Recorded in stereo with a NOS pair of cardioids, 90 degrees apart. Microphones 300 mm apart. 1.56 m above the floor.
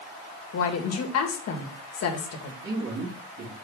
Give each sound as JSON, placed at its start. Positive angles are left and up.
{"t": 0.5, "sound": "a woman speaking", "azimuth_deg": 55, "distance_m": 1.8}
{"t": 2.6, "sound": "a man speaking", "azimuth_deg": -50, "distance_m": 3.5}